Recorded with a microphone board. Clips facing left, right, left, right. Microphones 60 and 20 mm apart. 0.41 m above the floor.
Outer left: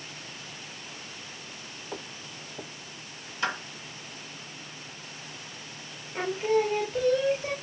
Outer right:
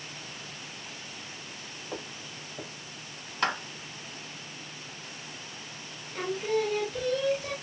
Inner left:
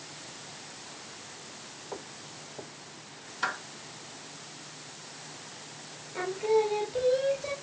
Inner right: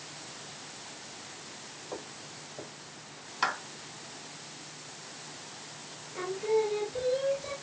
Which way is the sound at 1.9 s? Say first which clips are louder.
Even, even; centre (ahead or behind).